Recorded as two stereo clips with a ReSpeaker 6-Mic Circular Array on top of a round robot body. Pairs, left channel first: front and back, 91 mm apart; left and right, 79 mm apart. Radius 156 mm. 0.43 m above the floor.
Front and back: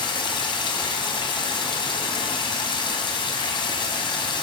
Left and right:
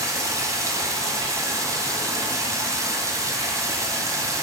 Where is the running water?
35° right, 1.4 m.